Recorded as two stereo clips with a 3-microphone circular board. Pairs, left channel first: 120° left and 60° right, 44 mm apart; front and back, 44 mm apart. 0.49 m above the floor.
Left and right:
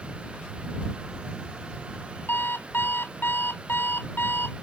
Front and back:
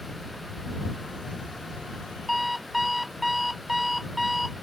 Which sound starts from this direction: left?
An alarm clock, at 2.3 s.